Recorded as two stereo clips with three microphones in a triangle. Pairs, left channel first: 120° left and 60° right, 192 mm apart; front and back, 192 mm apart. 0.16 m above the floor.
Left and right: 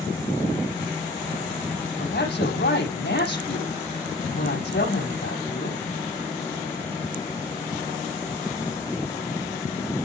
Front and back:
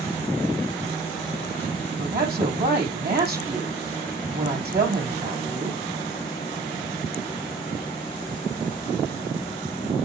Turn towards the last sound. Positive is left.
turn(degrees=150)